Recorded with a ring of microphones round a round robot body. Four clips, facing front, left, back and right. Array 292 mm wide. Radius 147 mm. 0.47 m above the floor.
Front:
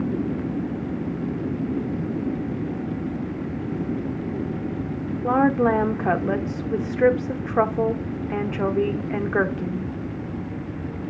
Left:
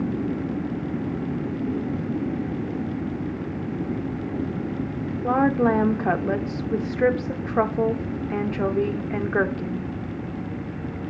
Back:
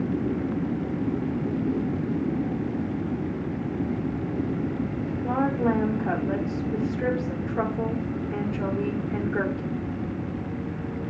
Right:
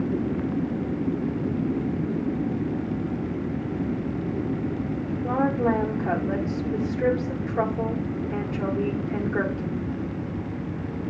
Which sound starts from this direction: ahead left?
A woman speaking, at 5.2 s.